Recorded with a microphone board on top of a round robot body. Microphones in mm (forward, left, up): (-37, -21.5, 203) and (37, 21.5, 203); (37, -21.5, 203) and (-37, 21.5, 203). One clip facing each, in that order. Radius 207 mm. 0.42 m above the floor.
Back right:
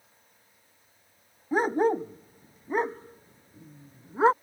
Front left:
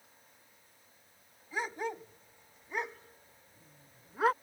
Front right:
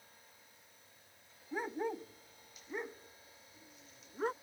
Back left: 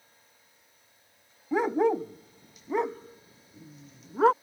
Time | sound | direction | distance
1.5 | a dog barking | 165° left | ?